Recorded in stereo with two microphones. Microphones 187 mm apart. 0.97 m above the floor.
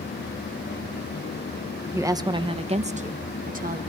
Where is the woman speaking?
15° right (ahead or behind), 0.9 m; by 3.8 s 45° right (ahead or behind), 1.2 m.